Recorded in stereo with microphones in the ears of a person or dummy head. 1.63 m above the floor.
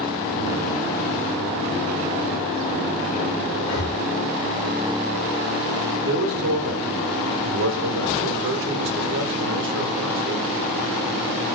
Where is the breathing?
70° left (ahead or behind), 1.2 m.